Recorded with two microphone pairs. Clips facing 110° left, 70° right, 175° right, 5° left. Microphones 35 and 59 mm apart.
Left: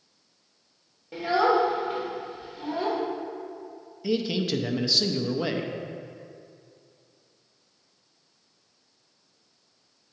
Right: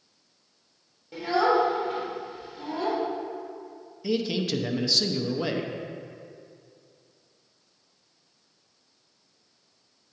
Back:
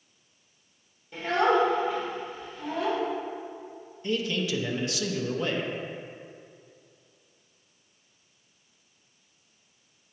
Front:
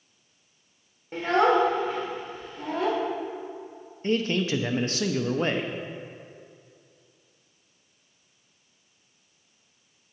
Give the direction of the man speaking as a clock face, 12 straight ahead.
11 o'clock.